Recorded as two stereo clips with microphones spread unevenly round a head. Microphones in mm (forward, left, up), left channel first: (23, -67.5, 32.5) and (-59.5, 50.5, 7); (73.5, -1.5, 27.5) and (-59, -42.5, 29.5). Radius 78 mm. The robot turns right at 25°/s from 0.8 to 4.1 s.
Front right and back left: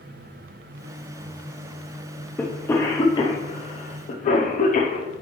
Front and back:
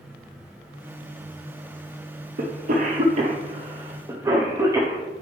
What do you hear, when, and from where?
2.4 s a cough: 135° right, 0.9 m; by 5.1 s 95° right, 0.9 m